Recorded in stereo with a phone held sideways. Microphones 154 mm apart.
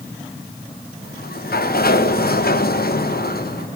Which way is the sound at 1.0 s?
80° left.